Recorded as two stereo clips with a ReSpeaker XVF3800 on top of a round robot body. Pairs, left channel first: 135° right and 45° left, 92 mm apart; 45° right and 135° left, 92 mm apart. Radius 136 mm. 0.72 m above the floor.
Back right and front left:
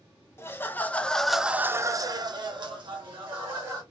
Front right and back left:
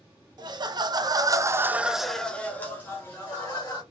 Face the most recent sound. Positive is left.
turn(degrees=10)